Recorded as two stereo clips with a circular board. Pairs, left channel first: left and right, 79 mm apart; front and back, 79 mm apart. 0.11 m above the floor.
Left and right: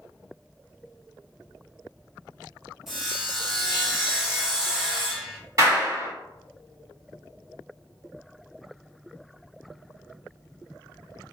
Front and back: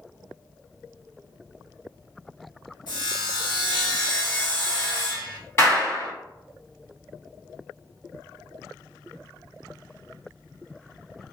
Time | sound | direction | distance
2.9 | sawing | 5° right | 1.0 m
5.6 | a clap | 55° right | 1.9 m